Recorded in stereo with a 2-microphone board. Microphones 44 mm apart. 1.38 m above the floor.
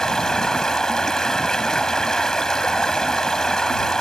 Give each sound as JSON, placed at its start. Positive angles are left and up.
{"t": 0.0, "sound": "running water", "side_deg": 15}